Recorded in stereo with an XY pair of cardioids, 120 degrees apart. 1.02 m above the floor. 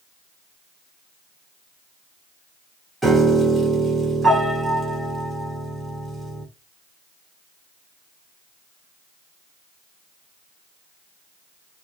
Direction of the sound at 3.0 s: 15° right.